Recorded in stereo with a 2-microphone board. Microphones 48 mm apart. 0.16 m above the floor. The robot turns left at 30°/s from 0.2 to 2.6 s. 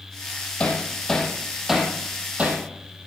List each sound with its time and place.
0.6 s hammering: 25° left (ahead or behind), 3 m; by 2.6 s 35° right (ahead or behind), 3 m